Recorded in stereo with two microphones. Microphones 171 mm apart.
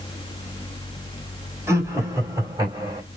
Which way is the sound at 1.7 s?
15° right (ahead or behind).